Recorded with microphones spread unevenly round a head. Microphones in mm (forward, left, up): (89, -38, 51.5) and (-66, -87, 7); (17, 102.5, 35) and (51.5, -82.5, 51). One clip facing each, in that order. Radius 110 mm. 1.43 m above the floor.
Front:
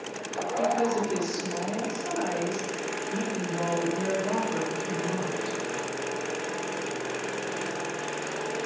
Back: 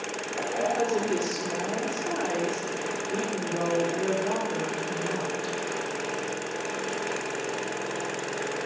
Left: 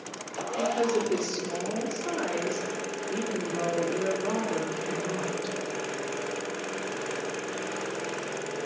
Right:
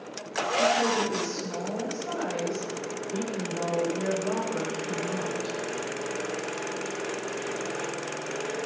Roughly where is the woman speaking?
Behind left.